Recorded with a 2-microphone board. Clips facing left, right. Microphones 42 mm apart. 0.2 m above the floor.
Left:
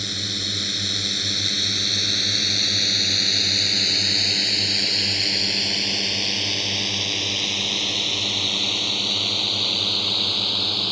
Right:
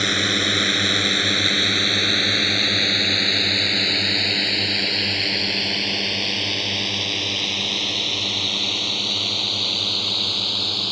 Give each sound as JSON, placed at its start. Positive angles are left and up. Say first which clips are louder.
{"t": 0.0, "sound": "a drone", "louder": "right 9 dB", "side_deg": -50}